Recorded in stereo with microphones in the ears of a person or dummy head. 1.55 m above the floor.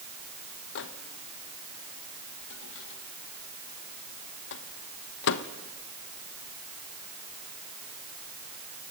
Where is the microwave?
65° left (ahead or behind), 1.1 m.